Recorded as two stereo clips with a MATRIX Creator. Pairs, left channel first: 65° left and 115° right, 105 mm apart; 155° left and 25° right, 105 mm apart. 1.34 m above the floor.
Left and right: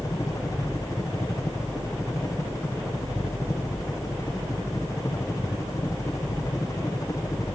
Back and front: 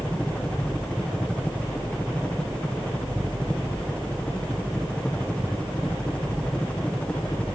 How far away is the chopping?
No chopping in this recording.